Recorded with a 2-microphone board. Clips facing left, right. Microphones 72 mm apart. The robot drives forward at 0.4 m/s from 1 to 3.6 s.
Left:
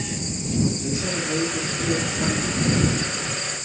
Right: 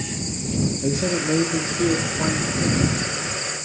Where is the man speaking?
60° right (ahead or behind), 0.5 m; by 2.9 s 30° right (ahead or behind), 0.9 m.